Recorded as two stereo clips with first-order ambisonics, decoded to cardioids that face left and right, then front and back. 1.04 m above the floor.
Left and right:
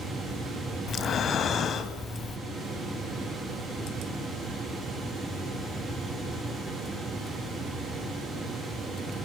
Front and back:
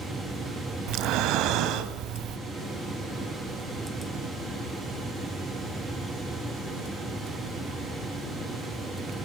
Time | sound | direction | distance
0.9 | breathing | 150° left | 1.7 m